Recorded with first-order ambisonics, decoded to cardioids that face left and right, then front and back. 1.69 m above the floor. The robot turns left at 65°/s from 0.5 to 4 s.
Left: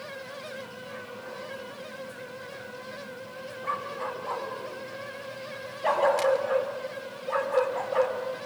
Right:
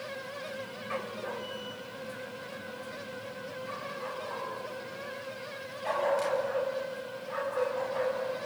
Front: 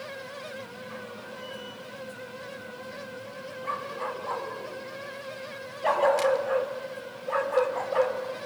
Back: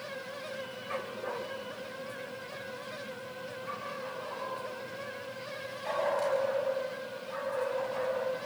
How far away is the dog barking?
About 2.5 m.